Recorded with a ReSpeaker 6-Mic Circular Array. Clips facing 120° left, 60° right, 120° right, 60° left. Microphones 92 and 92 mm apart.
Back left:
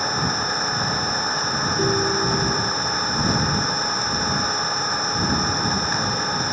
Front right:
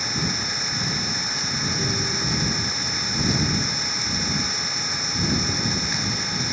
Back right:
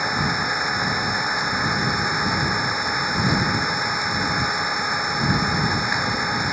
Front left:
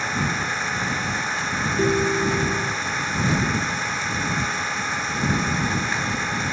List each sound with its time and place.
0.0 s an engine running: 165° left
1.8 s a ringtone: 85° left